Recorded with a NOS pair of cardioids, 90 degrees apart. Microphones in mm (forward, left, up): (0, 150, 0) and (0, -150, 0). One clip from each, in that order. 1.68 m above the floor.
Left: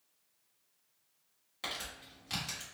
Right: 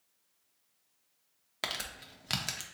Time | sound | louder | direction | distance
1.6 | crumpling | right 4 dB | 55° right | 0.8 m